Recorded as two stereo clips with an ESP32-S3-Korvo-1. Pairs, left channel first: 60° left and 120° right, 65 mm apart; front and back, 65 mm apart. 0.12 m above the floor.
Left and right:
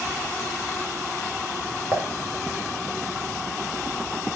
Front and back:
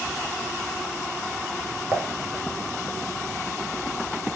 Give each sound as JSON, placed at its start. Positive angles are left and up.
{"t": 1.9, "sound": "dishes clattering", "azimuth_deg": -155, "distance_m": 0.9}